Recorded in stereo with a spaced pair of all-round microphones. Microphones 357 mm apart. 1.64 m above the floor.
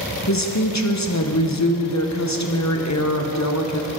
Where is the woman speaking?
50° left (ahead or behind), 0.9 m.